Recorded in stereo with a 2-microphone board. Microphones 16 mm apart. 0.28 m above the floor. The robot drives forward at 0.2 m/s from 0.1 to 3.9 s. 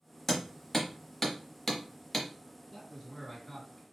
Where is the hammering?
20° left (ahead or behind), 1.1 m; by 2.3 s 25° left (ahead or behind), 0.9 m.